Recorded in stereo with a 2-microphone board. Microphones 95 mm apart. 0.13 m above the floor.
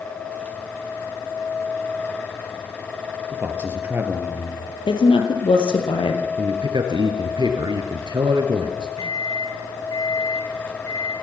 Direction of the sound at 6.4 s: 55° right (ahead or behind).